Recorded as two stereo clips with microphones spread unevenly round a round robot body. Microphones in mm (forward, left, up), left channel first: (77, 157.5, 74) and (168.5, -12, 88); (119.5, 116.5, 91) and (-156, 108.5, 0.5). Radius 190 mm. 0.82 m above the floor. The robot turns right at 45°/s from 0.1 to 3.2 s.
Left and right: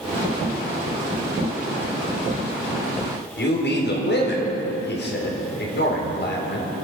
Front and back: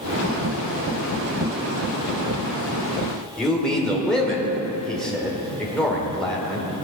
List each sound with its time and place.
3.4 s a man speaking: 95° left, 3.5 m